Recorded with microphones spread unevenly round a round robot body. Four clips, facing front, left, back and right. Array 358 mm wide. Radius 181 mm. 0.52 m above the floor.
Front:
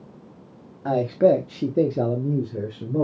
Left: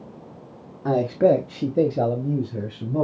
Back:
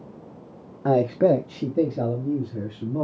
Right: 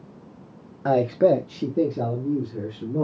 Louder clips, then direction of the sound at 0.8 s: Even, even; 175° right.